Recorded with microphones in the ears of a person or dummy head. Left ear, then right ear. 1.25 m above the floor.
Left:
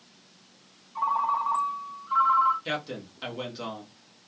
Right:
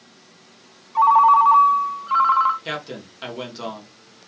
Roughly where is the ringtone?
Right.